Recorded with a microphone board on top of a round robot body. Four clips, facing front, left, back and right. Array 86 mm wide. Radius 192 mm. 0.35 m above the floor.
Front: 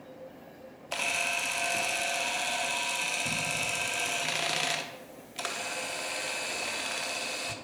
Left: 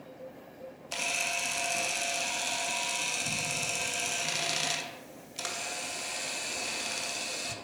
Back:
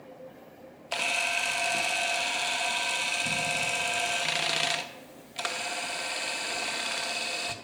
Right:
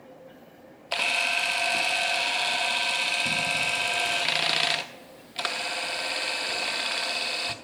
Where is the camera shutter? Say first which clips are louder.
Right 7 dB, back 2 dB; 100° right, 0.8 m.